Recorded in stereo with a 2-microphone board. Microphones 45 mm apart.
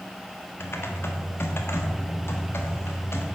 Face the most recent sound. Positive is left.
turn(degrees=65)  # may be behind; listen again after turning